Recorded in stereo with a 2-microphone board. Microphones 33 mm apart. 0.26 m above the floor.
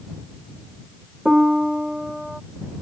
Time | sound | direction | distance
1.2 | a piano | 10° right (ahead or behind) | ?